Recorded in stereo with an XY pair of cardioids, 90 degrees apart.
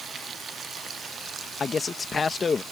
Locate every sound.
1.6 s a man speaking: 45° left